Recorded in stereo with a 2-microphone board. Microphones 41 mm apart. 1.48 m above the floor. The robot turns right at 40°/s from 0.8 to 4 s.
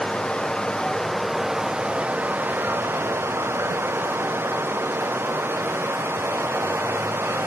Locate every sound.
0.0 s running water: 165° left, 0.8 m; by 7.5 s 70° right, 0.8 m